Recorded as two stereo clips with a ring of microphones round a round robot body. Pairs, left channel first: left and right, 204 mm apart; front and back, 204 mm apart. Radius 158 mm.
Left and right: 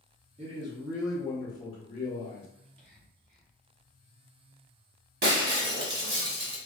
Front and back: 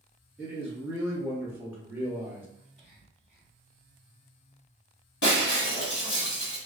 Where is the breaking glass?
50° right, 1.4 m.